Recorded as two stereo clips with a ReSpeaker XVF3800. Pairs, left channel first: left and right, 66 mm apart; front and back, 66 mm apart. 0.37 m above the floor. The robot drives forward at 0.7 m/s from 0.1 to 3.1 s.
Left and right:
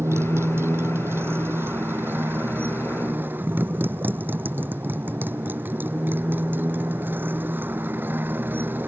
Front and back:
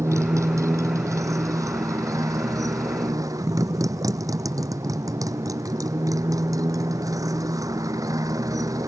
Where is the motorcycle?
140° right; by 8.9 s 150° right.